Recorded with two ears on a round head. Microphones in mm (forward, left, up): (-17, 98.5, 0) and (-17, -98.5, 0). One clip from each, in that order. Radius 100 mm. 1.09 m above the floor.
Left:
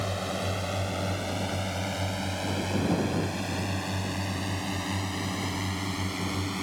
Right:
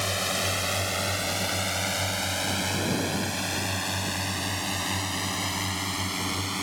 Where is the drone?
55° right (ahead or behind); by 6.6 s 30° right (ahead or behind).